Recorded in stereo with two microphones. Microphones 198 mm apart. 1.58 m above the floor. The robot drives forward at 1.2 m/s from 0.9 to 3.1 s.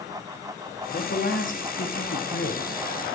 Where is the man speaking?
45° left (ahead or behind), 1.6 m.